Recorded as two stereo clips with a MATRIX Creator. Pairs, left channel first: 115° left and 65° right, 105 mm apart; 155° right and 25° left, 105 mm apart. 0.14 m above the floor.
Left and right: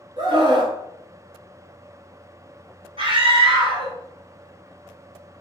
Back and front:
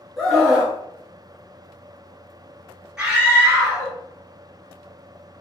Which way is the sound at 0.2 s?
65° right.